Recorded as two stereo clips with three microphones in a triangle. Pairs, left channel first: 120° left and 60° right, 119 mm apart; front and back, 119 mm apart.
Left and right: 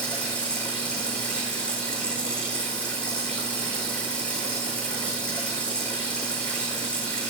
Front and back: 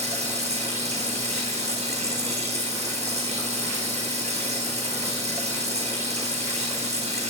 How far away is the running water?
About 4.5 m.